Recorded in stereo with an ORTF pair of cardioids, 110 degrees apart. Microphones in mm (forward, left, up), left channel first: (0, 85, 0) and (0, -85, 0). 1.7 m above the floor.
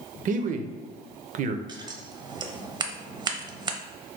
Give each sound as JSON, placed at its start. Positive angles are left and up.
{"t": 0.2, "sound": "a man speaking", "azimuth_deg": -50, "distance_m": 0.7}
{"t": 1.7, "sound": "scissors", "azimuth_deg": -25, "distance_m": 0.7}